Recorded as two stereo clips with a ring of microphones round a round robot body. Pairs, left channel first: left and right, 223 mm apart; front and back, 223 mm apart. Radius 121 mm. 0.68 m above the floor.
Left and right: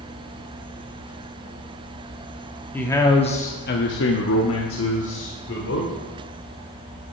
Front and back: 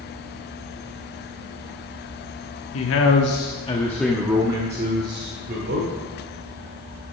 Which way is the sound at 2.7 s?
10° left.